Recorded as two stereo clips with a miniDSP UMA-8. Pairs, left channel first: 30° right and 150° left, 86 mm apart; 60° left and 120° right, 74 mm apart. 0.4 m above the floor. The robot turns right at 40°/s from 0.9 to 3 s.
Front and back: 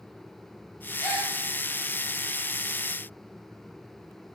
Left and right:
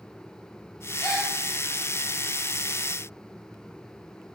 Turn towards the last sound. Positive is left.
turn(degrees=95)